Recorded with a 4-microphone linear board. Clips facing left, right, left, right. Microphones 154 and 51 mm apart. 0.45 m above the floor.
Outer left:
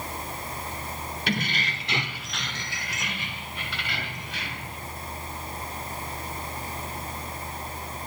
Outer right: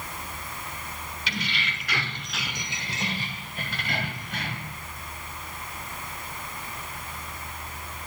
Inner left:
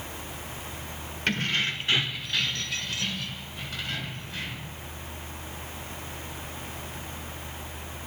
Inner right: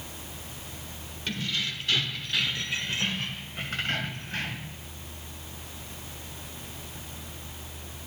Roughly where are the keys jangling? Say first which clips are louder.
Outer left 5 dB, inner left 5 dB; left.